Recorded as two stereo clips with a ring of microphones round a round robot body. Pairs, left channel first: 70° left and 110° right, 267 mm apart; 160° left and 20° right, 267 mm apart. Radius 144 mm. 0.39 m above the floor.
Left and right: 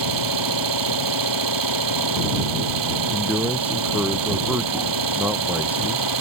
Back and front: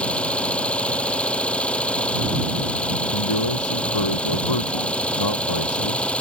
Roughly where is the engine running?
Behind right.